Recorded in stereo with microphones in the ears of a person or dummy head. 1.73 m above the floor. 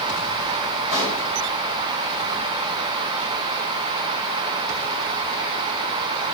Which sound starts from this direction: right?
A pop, at 0.9 s.